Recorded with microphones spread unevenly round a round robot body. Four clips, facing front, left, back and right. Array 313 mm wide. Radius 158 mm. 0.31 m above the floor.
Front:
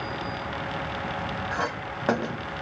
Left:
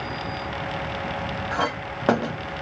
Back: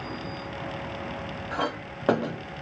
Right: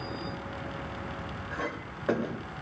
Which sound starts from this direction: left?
A clink, at 1.5 s.